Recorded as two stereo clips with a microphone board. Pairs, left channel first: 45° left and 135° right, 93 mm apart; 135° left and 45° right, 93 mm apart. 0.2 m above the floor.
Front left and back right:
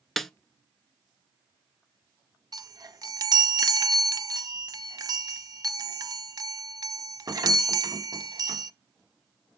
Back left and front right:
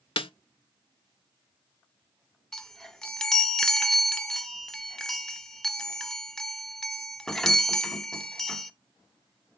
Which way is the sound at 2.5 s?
145° right.